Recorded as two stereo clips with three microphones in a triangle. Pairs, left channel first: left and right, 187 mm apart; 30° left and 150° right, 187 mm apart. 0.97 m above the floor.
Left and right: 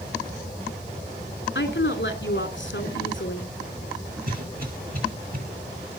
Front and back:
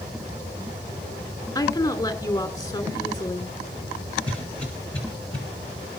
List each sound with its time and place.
1.6 s a woman speaking: 100° left, 2.5 m
4.2 s a cough: 55° right, 7.5 m